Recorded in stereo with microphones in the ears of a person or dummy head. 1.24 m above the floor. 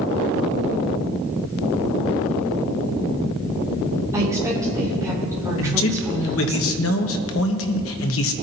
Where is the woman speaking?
15° right (ahead or behind), 3 m.